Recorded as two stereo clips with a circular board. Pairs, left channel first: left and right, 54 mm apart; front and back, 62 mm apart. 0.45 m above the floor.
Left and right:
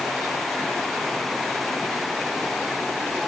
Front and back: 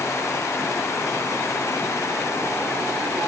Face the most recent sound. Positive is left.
No sound to turn to.